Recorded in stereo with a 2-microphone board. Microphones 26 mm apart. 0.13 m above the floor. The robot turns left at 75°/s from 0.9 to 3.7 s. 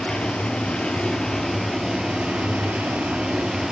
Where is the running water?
45° left, 0.9 m; by 3.7 s 165° right, 0.9 m.